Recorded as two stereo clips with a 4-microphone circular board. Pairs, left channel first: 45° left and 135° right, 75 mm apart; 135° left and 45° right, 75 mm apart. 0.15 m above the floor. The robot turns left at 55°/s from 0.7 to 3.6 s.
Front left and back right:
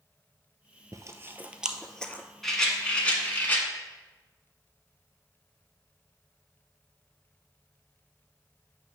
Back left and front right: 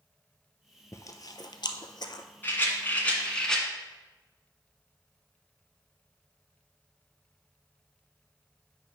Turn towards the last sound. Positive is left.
turn(degrees=65)